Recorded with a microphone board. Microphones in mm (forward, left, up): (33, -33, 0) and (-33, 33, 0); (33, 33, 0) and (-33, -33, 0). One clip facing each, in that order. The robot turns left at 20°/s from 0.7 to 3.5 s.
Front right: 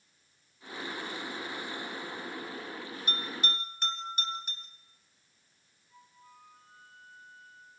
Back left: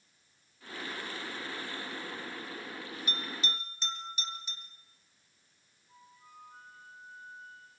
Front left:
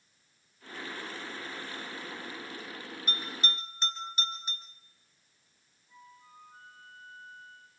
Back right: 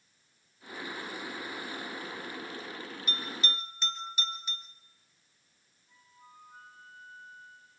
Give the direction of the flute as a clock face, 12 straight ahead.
7 o'clock.